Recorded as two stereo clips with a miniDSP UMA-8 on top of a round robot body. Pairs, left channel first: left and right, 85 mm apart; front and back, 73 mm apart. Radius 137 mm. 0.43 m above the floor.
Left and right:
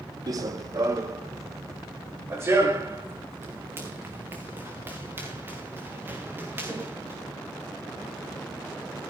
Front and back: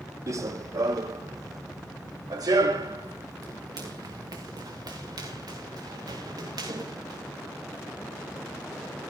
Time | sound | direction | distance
0.3 | running footsteps | 135° right | 1.1 m